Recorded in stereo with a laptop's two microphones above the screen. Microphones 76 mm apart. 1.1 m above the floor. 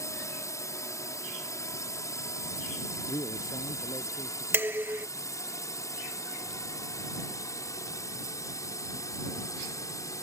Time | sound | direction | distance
0.0 | a drone | 45° left (ahead or behind) | ?
3.1 | a man speaking | 75° left (ahead or behind) | ?
4.5 | dishes clattering | 30° right (ahead or behind) | ?